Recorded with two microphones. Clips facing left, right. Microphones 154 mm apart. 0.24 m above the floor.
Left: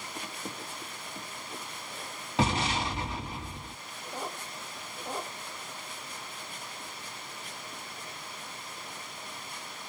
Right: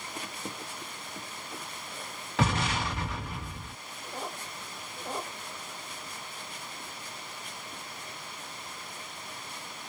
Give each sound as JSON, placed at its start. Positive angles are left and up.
{"t": 2.4, "sound": "an explosion", "side_deg": 15, "distance_m": 1.8}